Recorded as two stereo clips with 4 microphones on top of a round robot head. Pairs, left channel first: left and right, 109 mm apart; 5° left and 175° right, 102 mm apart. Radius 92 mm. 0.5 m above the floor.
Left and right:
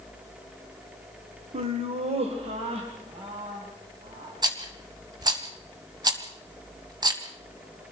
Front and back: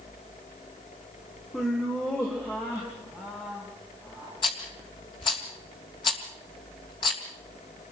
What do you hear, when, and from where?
1.5 s laughter: 80° right, 1.4 m; by 4.4 s 60° right, 5 m
4.4 s a rattle: 40° right, 3 m